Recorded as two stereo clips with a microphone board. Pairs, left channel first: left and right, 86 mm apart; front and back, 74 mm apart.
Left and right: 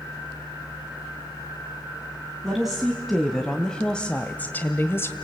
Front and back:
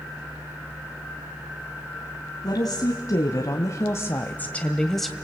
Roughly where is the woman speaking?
Ahead.